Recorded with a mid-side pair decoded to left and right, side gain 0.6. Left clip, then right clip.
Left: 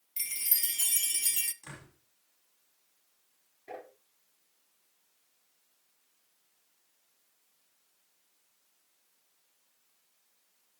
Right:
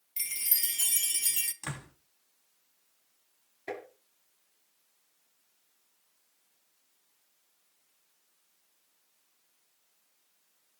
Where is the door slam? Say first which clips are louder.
Right 8 dB; 60° right, 4 m.